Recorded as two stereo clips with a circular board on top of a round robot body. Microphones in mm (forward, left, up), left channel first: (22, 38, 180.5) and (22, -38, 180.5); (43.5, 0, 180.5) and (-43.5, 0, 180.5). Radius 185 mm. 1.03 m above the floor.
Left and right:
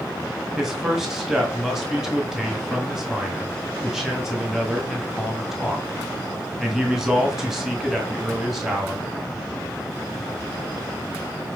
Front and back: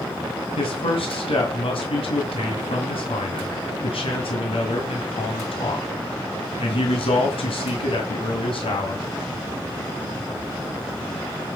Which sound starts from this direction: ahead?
A man speaking, at 0.6 s.